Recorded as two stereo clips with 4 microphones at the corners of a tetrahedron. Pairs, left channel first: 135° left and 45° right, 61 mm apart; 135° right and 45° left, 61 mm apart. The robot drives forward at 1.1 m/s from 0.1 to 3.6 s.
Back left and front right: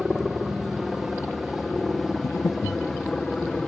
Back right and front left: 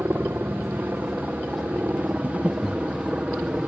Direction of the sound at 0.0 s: 35° left.